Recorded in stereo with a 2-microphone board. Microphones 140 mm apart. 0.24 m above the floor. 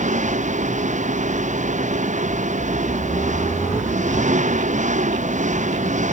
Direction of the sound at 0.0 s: 60° right (ahead or behind).